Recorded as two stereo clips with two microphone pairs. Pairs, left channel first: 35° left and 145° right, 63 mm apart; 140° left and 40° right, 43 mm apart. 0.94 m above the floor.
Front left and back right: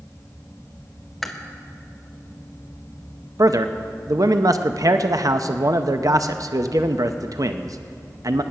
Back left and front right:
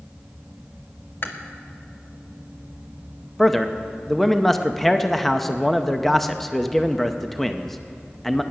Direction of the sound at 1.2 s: 125° left.